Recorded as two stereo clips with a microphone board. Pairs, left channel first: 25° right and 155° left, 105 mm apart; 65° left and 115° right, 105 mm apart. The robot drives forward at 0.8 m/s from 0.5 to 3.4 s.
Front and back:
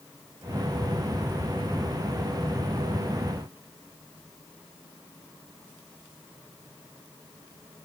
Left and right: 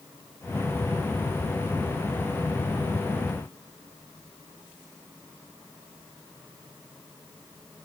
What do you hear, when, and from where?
Only background noise.